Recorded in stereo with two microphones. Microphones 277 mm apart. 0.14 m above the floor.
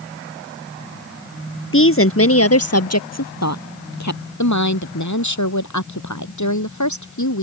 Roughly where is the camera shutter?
No camera shutter in this recording.